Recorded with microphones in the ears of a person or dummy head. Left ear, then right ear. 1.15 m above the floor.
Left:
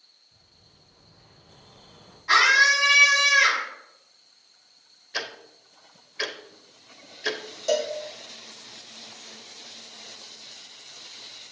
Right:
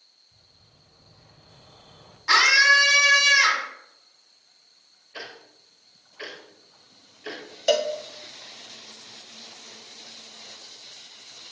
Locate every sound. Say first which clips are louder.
0.3 s a bird: even; 55° right (ahead or behind), 1.9 m
2.3 s a scream: right 1 dB; 60° right (ahead or behind), 3.5 m
5.1 s ticking: left 7 dB; 80° left, 1.1 m
7.7 s a cowbell: right 3 dB; 30° right (ahead or behind), 0.5 m